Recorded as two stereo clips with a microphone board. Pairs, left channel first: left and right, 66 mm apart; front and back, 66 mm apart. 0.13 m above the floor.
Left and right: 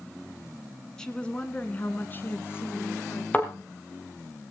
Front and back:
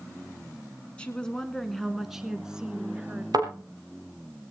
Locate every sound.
1.0 s a woman speaking: 30° left, 1.5 m; by 3.2 s 115° left, 2 m
3.3 s a thud: 160° left, 4 m